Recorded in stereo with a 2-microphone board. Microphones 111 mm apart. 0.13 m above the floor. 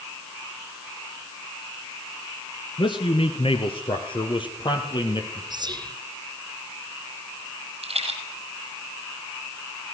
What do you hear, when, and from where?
2.8 s a man speaking: 50° left (ahead or behind), 1.8 m; by 5.4 s 40° left (ahead or behind), 4 m
5.5 s whispering: 40° right (ahead or behind), 2 m
7.8 s a rattle: 65° right (ahead or behind), 5 m